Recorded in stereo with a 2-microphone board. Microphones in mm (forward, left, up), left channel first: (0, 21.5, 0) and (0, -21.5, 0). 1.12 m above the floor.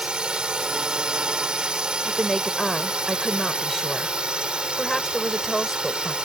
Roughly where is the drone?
Centre.